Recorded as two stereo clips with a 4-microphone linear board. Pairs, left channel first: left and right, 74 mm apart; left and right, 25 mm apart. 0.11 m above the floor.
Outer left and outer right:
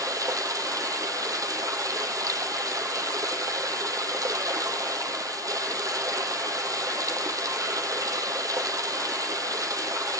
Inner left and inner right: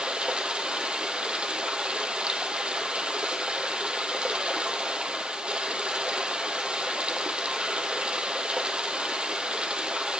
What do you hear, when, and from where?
0.0 s running water: 55° right (ahead or behind), 1.1 m